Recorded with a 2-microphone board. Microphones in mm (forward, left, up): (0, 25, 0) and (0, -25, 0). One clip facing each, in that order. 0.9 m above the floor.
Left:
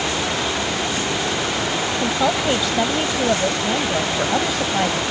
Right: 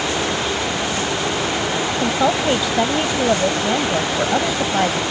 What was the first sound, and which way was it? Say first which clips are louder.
A woman speaking: right 2 dB; 10° right (ahead or behind).